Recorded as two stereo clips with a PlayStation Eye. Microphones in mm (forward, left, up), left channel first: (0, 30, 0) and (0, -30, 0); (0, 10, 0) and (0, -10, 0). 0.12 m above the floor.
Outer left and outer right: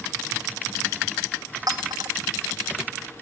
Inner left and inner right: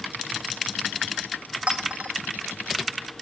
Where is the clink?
80° right, 4 m.